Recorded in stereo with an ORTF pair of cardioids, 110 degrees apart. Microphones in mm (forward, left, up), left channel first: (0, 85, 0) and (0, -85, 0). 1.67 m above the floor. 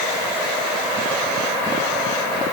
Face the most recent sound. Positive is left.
No sound to turn to.